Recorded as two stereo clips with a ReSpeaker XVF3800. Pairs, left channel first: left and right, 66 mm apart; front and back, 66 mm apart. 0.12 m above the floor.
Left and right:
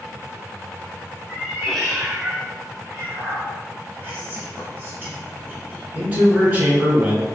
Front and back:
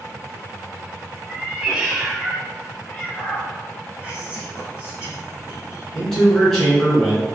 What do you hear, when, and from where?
1.3 s a cat meowing: 140° left, 0.8 m; by 3.5 s 55° right, 1.2 m
4.0 s whispering: 120° right, 1.1 m
5.9 s a man speaking: 80° right, 1.3 m